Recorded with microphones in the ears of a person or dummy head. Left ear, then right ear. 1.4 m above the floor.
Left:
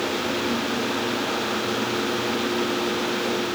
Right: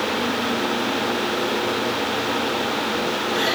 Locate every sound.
Only background noise.